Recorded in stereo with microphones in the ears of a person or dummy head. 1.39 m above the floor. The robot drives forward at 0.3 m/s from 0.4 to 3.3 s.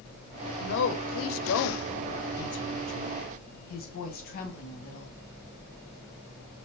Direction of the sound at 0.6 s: 60° left (ahead or behind).